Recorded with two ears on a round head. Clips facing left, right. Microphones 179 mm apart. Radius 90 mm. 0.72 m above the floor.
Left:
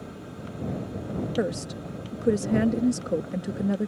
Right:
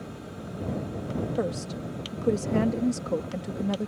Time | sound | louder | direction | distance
1.4 | a woman speaking | left 2 dB | 15° left (ahead or behind) | ?